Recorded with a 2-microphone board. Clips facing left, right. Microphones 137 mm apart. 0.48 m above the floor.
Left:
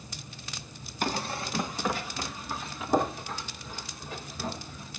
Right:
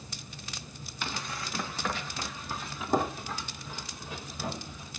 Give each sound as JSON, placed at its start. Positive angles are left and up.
{"t": 1.0, "sound": "running footsteps", "side_deg": 45, "distance_m": 1.2}